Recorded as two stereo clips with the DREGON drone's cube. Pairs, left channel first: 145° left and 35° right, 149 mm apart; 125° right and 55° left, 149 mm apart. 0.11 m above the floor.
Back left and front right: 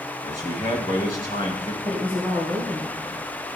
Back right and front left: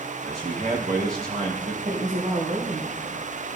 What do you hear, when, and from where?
0.2 s a man speaking: 95° left, 5 m
1.8 s a woman speaking: 75° left, 2.5 m